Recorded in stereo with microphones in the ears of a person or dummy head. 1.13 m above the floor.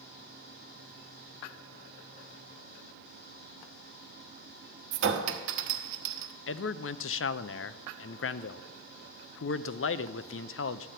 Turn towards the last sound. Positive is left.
turn(degrees=65)  # may be behind; listen again after turning